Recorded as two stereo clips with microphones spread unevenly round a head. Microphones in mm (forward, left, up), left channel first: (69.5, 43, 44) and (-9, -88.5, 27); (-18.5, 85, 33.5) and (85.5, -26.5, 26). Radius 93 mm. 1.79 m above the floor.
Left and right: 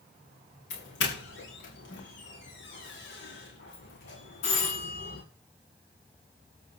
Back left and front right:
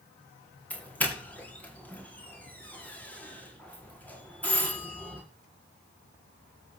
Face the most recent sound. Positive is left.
turn(degrees=55)